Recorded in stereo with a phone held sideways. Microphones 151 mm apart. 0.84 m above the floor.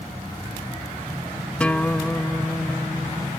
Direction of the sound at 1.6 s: 10° left (ahead or behind).